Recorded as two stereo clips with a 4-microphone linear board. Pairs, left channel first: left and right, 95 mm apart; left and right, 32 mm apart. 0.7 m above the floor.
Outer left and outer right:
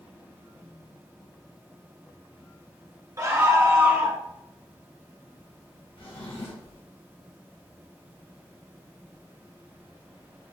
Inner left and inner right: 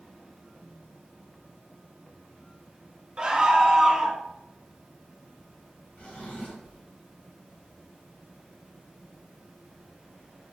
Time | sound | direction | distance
3.2 | a scream | 35° right (ahead or behind) | 1.2 m
6.0 | a drawer | 85° left | 1.5 m